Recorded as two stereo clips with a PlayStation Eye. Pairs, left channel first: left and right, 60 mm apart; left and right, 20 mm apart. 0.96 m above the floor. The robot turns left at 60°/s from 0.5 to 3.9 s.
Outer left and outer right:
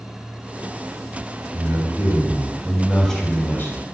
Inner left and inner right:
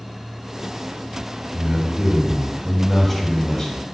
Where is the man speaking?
105° right, 3 m; by 3.9 s 120° left, 3 m.